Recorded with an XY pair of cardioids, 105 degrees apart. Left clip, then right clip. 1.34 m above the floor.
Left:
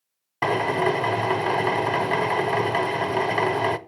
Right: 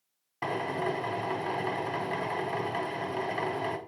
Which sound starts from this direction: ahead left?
A drill, at 0.4 s.